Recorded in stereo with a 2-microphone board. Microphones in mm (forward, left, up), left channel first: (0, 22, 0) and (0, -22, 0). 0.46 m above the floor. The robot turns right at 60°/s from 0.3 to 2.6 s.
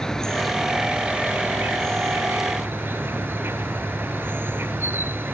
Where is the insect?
165° left; by 5.3 s 55° right.